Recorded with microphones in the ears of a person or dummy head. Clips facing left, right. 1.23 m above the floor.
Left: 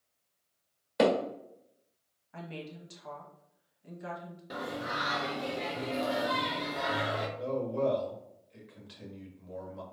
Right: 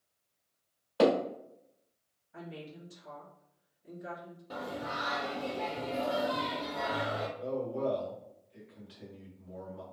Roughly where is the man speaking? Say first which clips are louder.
Left 4 dB; left.